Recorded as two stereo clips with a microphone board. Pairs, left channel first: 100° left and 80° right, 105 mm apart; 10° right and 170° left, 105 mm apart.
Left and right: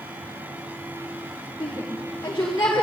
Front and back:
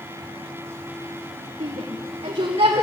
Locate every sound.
1.6 s a shout: 160° left, 1.8 m; by 2.8 s 165° left, 3 m